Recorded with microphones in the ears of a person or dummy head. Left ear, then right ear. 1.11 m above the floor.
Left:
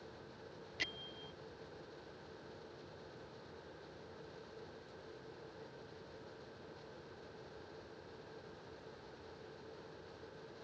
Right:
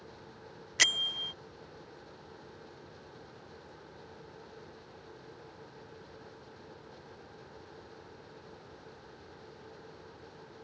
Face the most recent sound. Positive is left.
turn(degrees=-45)  # may be behind; listen again after turning